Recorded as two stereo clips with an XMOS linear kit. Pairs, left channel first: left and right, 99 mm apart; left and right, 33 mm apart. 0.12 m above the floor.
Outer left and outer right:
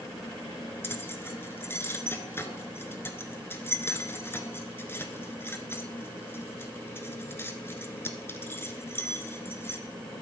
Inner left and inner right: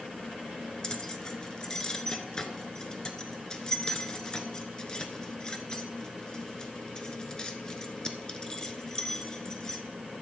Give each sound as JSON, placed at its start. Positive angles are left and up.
{"t": 0.8, "sound": "keys jangling", "side_deg": 25, "distance_m": 1.0}